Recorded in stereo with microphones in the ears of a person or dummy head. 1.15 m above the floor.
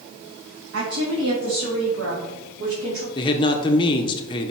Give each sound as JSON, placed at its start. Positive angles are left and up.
{"t": 0.7, "sound": "a woman speaking", "side_deg": -75, "distance_m": 1.7}
{"t": 3.1, "sound": "a man speaking", "side_deg": 20, "distance_m": 0.7}